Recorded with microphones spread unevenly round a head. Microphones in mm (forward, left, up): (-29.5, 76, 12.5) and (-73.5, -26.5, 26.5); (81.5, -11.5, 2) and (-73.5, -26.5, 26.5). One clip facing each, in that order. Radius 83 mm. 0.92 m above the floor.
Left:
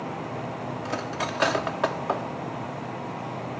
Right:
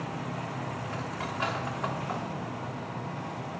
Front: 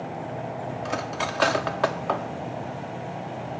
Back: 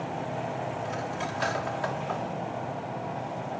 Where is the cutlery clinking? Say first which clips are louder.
Left 5 dB, front 3 dB; 35° left, 1.0 m.